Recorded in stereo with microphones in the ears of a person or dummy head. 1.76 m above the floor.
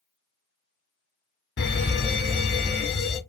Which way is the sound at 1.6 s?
50° left (ahead or behind).